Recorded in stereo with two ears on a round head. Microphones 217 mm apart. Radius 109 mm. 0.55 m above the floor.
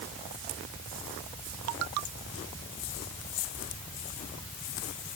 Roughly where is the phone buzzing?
I don't hear a phone buzzing.